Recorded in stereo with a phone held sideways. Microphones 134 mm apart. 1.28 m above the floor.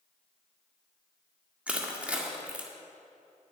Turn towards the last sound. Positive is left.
turn(degrees=-10)  # may be behind; listen again after turning